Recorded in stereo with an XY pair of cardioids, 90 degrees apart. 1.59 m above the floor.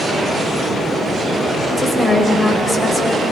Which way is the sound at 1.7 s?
15° left.